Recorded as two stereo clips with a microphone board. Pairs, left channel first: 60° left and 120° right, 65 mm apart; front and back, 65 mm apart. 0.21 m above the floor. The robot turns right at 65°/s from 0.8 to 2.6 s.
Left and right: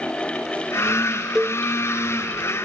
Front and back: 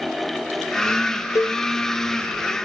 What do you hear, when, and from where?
1.4 s a cowbell: 40° right, 0.9 m; by 1.6 s 20° right, 0.9 m